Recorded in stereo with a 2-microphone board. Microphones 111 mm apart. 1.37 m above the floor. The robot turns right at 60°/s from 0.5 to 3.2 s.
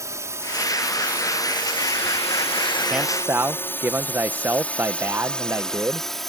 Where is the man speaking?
5° right (ahead or behind); by 6.1 s 20° right (ahead or behind).